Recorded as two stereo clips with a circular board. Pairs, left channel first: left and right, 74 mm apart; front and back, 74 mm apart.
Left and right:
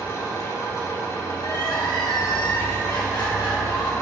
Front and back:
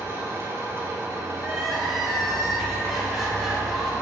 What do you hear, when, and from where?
0.0 s an engine running: 125° left, 1.8 m
1.4 s crying: 90° left, 1.2 m